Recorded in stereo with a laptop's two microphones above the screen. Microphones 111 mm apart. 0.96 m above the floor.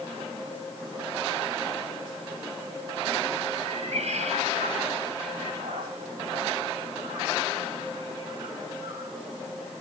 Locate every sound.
3.5 s a cat meowing: 85° right, 3 m; by 9.2 s 45° right (ahead or behind), 7 m